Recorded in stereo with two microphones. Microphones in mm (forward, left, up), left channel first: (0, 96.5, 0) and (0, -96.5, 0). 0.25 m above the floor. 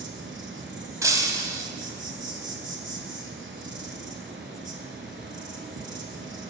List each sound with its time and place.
0.0 s an insect: 85° right, 0.8 m
1.0 s breaking glass: 15° right (ahead or behind), 0.7 m